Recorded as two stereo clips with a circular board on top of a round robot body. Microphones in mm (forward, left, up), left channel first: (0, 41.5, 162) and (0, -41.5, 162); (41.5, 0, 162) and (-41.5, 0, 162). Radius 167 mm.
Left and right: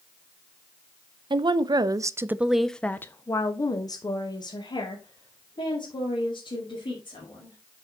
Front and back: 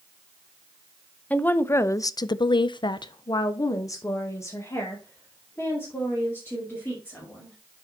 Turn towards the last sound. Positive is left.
turn(degrees=70)